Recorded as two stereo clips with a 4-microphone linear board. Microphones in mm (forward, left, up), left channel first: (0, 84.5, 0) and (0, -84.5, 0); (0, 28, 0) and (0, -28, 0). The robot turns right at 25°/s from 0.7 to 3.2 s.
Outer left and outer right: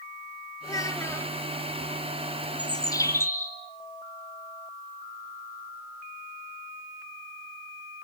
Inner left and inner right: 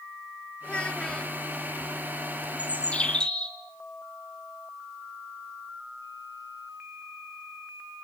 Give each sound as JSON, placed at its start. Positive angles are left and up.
{"t": 0.6, "sound": "a child speaking", "side_deg": 20, "distance_m": 1.0}
{"t": 2.6, "sound": "a bird", "side_deg": 30, "distance_m": 3.0}